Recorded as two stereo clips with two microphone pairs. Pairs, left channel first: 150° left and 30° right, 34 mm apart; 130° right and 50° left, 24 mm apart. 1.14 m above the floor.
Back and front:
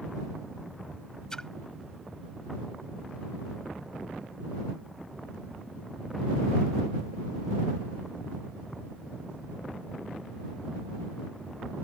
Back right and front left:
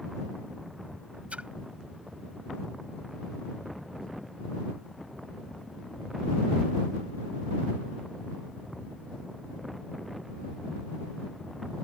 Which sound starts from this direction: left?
A splash, at 1.3 s.